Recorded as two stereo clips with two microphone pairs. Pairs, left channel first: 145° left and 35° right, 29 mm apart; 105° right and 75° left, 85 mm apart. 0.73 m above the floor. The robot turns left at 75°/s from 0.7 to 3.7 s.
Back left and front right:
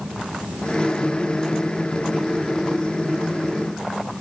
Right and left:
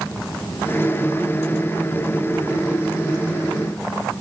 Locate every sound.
Only background noise.